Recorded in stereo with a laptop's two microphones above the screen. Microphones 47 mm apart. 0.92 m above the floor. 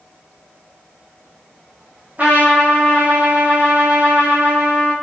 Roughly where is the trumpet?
Right.